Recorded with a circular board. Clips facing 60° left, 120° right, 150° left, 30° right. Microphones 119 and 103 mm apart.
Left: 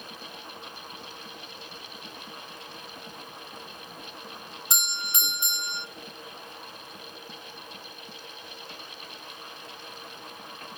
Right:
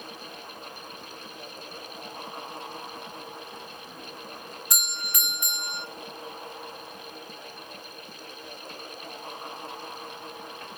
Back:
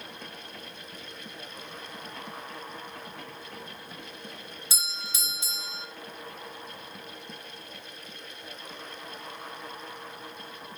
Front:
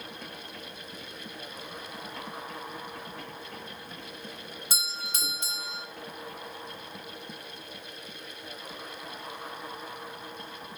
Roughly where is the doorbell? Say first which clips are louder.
Left 4 dB, front 3 dB; ahead.